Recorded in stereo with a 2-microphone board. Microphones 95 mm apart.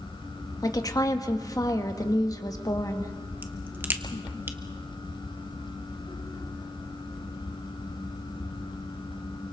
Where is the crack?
20° right (ahead or behind), 1.2 m.